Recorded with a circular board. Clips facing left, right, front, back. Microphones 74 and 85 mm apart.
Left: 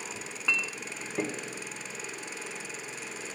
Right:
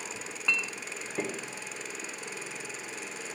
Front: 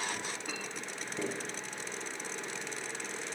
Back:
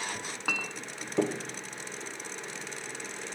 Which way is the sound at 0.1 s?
Straight behind.